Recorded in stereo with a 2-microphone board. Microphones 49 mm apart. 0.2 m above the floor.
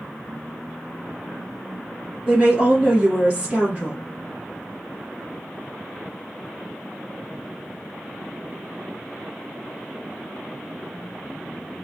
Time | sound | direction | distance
2.3 | a woman speaking | 20° right (ahead or behind) | 3.5 m